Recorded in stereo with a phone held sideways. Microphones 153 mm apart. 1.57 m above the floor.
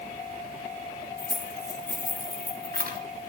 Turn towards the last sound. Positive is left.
turn(degrees=-70)  # may be behind; listen again after turning